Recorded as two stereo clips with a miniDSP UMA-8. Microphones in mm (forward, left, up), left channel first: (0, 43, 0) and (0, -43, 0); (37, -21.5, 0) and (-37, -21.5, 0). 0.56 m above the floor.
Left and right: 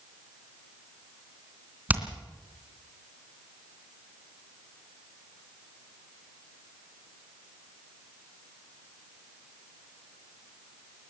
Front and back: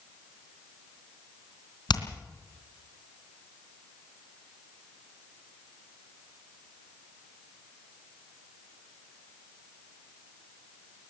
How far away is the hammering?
About 3 m.